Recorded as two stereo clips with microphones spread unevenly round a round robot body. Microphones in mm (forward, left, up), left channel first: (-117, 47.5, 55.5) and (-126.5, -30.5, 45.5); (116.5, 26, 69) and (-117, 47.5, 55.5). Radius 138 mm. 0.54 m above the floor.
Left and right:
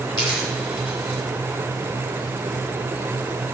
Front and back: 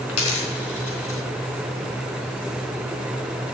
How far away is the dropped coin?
About 3.5 m.